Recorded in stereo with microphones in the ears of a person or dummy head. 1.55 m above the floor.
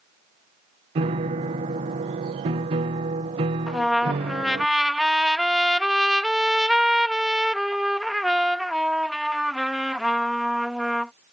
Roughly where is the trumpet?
Centre.